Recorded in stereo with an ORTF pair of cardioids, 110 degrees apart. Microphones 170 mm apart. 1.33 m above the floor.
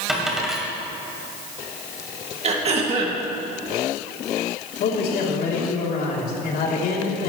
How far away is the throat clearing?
About 2.5 m.